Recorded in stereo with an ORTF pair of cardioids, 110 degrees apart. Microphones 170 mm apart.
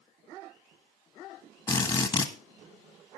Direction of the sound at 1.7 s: 25° left.